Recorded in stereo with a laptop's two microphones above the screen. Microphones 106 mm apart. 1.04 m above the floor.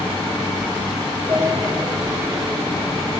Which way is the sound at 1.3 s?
55° right (ahead or behind).